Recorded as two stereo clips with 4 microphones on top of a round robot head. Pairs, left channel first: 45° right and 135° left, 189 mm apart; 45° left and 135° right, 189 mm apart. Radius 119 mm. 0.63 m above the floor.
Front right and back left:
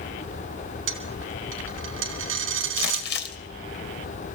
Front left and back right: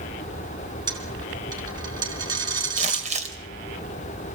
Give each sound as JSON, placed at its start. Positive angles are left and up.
{"t": 0.9, "sound": "a dropped coin", "azimuth_deg": 155, "distance_m": 3.5}
{"t": 2.8, "sound": "crumpling", "azimuth_deg": -80, "distance_m": 2.5}